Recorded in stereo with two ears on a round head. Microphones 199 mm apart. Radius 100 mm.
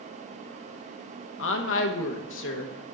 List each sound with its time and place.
1.4 s a woman speaking: 60° left (ahead or behind), 1.1 m